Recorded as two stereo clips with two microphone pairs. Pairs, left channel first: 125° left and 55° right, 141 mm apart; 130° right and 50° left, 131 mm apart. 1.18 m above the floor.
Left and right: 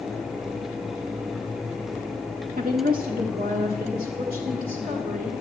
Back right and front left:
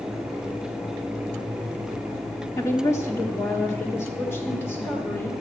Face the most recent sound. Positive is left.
turn(degrees=-60)